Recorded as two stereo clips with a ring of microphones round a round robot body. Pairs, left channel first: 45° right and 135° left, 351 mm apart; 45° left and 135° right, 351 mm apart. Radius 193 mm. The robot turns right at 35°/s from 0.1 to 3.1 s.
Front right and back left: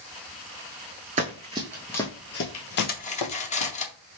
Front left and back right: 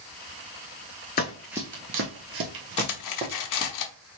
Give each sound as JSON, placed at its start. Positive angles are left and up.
{"t": 1.2, "sound": "running footsteps", "azimuth_deg": 85, "distance_m": 0.5}
{"t": 2.8, "sound": "cutlery clinking", "azimuth_deg": 10, "distance_m": 0.7}